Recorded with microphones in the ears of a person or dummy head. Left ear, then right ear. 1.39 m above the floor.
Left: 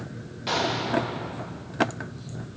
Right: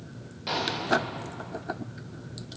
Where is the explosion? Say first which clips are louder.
Left 1 dB; 5° left (ahead or behind), 0.8 m.